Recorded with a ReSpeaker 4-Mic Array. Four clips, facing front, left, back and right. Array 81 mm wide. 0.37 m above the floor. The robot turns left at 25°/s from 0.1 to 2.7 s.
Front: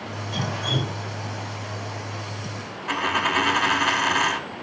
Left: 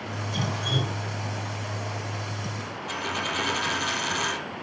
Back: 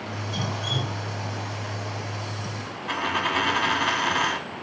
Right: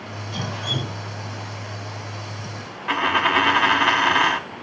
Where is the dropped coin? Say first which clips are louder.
Right 12 dB, front 2 dB; 80° right, 0.6 m.